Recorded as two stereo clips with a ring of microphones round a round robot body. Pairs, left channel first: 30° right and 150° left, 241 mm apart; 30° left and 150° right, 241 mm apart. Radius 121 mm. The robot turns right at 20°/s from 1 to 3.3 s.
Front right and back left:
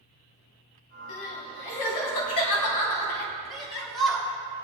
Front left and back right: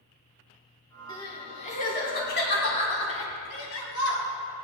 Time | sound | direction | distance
1.1 | crying | 45° right | 2.5 m
3.5 | a shout | 60° left | 4 m